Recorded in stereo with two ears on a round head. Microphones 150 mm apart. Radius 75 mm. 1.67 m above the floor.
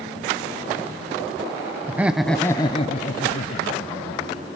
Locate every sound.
1.9 s laughter: 10° right (ahead or behind), 0.8 m; by 4.4 s 50° left (ahead or behind), 1.5 m